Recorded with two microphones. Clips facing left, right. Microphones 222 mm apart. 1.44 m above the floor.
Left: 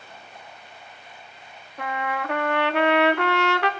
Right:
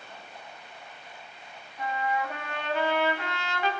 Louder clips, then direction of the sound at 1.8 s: Left 1 dB; 70° left (ahead or behind).